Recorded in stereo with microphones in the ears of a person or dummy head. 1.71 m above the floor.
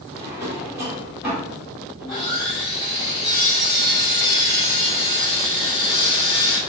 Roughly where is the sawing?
Centre.